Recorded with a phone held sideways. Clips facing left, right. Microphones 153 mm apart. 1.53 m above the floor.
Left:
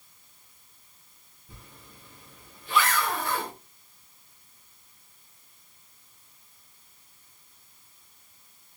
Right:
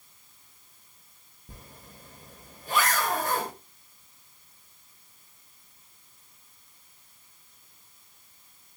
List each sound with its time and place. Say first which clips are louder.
1.5 s a zipper: right 2 dB; 45° right (ahead or behind), 0.7 m